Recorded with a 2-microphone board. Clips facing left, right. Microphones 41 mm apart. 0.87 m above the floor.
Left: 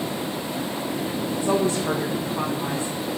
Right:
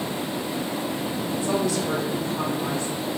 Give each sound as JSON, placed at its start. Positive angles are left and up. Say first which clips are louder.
{"t": 1.3, "sound": "a woman speaking", "louder": "left 2 dB", "side_deg": 30, "distance_m": 0.5}